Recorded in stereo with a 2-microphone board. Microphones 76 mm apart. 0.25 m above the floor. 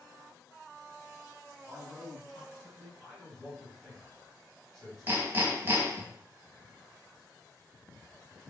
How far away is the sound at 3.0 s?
About 1.4 m.